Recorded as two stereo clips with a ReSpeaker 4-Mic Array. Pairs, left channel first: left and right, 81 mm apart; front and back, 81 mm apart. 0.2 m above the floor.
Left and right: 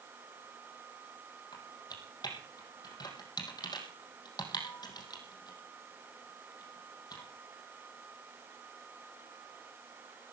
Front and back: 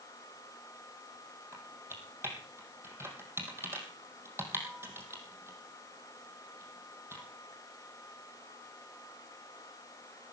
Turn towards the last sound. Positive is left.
turn(degrees=120)